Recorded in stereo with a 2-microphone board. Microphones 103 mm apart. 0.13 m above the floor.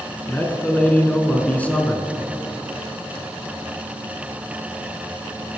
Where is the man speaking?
15° left (ahead or behind), 1.3 m.